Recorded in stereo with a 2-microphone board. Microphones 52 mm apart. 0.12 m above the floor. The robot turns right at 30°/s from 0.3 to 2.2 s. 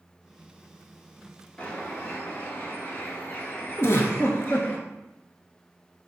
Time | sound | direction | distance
1.6 | a bird | 20° left (ahead or behind) | 0.7 m
3.8 | a giggle | 55° left (ahead or behind) | 0.5 m